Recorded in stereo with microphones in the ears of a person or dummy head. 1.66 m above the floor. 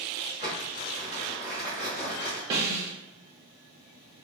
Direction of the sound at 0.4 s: 5° left (ahead or behind).